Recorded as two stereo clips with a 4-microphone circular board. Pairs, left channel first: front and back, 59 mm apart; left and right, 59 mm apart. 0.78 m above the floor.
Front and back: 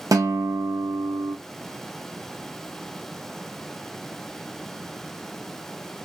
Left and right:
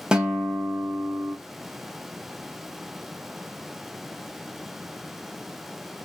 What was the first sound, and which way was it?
A guitar, 165° right.